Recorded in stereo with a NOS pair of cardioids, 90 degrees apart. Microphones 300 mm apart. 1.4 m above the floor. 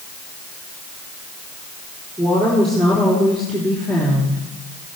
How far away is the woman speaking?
About 4 m.